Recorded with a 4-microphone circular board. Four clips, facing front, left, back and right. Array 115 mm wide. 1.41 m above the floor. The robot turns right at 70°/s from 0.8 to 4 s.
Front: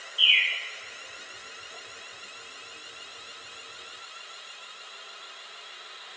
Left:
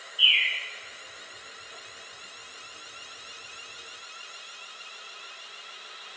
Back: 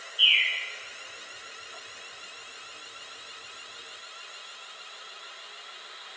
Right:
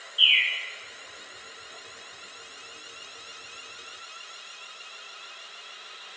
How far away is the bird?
About 0.7 m.